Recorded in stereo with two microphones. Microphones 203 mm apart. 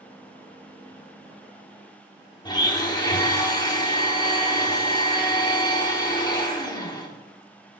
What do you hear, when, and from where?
2.5 s a blender: 20° left (ahead or behind), 1.3 m